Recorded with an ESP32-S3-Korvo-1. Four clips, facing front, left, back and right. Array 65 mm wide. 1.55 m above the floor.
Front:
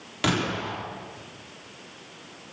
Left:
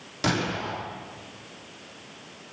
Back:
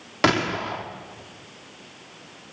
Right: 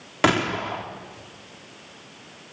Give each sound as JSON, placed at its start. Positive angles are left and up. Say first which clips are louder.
{"t": 0.2, "sound": "a gunshot", "louder": "right 6 dB, back 5 dB", "azimuth_deg": -130, "distance_m": 3.5}